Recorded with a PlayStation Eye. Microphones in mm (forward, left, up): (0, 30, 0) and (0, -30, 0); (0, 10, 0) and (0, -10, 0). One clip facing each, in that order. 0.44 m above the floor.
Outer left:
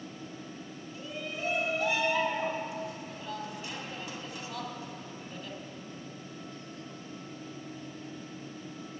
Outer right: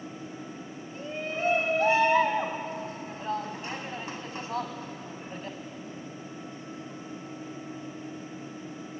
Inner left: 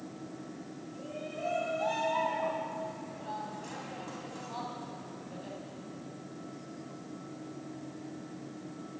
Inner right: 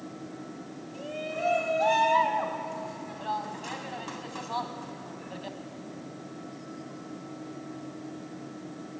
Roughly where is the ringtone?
I don't hear a ringtone.